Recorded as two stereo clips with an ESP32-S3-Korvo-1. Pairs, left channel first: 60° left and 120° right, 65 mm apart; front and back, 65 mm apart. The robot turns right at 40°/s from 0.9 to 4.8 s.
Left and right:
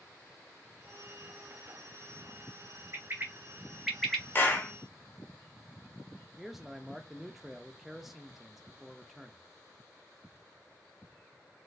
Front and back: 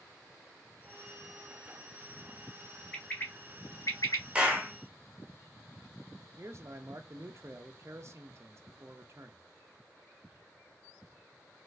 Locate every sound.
2.9 s a bird: 75° right, 0.9 m; by 4.2 s 20° right, 0.9 m
4.3 s a clap: 110° left, 0.9 m; by 4.7 s 125° left, 0.9 m
6.4 s a man speaking: 155° left, 0.5 m